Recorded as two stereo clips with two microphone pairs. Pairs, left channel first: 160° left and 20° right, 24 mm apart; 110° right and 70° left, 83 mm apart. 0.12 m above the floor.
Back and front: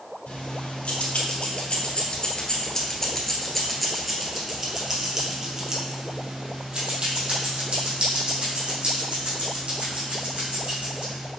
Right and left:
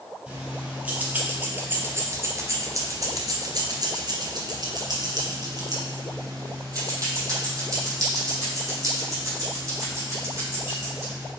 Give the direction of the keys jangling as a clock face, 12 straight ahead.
7 o'clock.